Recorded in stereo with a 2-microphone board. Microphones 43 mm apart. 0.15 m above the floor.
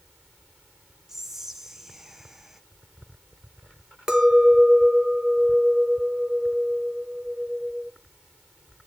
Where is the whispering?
5° right (ahead or behind), 1.0 m.